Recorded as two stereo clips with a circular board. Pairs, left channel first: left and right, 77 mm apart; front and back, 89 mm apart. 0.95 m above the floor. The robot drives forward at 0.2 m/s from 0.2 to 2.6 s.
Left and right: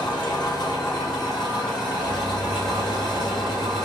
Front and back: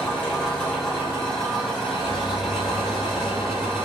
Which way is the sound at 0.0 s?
75° left.